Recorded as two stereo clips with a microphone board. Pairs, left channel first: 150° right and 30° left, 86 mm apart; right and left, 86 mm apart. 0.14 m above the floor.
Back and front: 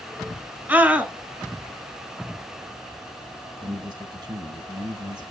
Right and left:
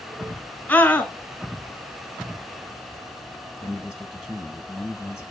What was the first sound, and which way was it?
A scream, 30° right.